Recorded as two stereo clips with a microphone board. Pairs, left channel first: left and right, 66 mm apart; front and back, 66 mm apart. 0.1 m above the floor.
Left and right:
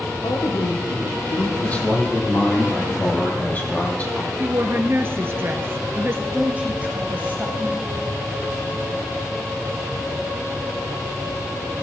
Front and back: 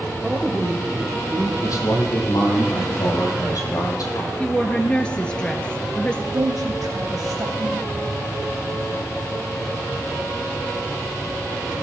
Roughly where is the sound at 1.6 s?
Ahead left.